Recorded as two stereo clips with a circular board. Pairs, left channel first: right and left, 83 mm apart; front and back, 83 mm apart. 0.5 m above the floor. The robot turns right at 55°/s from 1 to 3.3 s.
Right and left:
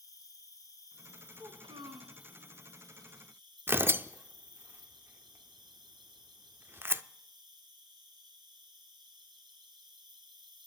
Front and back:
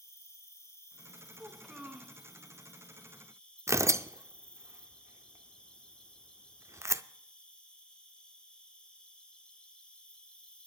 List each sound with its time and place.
0.0 s an insect: 50° right, 1.8 m; by 10.7 s 75° left, 1.8 m
1.4 s a child speaking: 75° left, 3 m; by 2.2 s 115° left, 3 m
3.7 s tearing paper: 145° left, 0.5 m